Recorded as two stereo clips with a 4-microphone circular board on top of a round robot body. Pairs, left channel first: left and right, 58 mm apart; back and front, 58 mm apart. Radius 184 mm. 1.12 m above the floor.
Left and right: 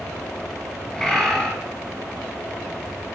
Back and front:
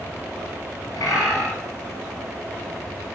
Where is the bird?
175° left, 3 m.